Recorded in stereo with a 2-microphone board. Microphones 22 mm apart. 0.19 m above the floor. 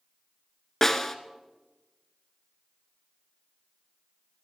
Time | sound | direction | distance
0.8 | a snare drum | 15° left (ahead or behind) | 0.8 m